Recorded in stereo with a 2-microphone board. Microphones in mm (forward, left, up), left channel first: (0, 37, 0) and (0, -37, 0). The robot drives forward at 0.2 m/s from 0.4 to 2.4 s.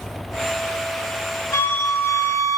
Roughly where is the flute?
Left.